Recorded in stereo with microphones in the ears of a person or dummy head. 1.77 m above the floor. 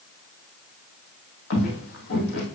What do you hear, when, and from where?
1.5 s footsteps: 60° left (ahead or behind), 3.5 m